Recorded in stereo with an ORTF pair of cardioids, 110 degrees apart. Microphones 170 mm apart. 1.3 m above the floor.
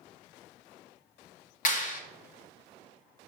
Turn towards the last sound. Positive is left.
turn(degrees=45)